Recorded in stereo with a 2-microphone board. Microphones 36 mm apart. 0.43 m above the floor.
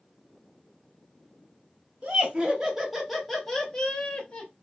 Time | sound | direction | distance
2.0 | laughter | 30° right (ahead or behind) | 1.3 m